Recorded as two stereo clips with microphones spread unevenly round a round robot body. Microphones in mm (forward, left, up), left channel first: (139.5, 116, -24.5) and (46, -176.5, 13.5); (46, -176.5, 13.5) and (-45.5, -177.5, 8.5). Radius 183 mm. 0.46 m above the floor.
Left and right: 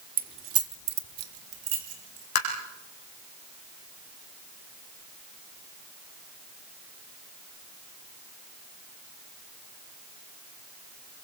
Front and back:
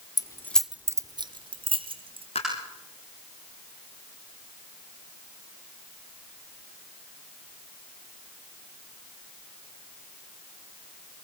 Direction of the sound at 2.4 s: 70° left.